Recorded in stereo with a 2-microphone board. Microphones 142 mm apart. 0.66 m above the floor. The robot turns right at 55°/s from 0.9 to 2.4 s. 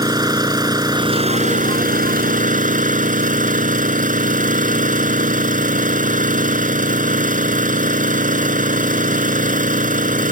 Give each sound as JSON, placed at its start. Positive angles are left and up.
{"t": 0.0, "sound": "an engine running", "azimuth_deg": -150}